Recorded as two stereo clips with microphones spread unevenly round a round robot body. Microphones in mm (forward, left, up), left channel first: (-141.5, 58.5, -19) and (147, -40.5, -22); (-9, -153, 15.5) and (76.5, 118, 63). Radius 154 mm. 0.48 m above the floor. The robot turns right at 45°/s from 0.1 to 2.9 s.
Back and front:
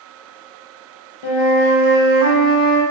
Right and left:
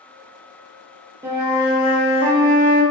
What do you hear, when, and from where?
1.2 s a flute: 155° left, 0.5 m; by 2.8 s 130° right, 0.5 m